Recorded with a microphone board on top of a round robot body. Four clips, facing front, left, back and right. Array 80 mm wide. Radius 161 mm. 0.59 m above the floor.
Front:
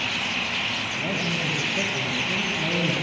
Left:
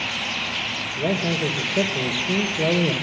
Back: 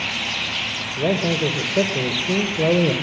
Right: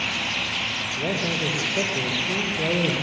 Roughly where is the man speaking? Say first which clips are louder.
Left 4 dB, back 10 dB; behind.